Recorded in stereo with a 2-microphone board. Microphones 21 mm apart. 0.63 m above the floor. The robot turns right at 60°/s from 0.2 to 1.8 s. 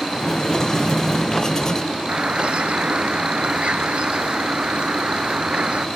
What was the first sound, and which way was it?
A bird, 65° right (ahead or behind).